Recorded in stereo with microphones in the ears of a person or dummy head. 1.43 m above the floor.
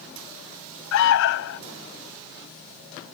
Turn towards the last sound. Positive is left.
turn(degrees=70)  # may be behind; listen again after turning